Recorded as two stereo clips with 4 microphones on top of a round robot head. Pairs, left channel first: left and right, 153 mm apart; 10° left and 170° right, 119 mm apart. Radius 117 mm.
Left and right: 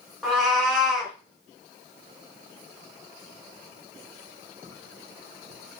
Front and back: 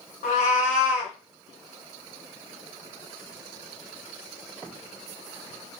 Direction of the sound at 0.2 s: Straight ahead.